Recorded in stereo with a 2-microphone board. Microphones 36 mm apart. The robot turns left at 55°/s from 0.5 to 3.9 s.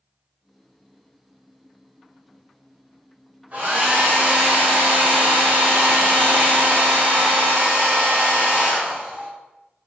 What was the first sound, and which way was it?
A hair dryer, 40° right (ahead or behind).